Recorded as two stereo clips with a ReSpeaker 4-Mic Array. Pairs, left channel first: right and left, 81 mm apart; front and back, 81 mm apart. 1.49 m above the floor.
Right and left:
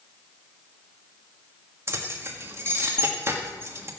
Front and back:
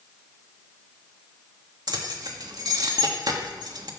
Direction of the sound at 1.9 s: 150° left.